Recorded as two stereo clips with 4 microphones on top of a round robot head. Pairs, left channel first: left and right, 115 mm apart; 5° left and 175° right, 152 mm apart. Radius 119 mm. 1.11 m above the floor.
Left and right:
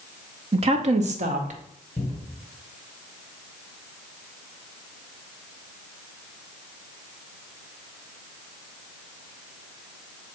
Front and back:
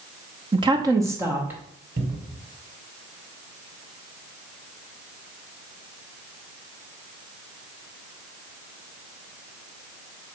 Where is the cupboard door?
155° left, 1.4 m.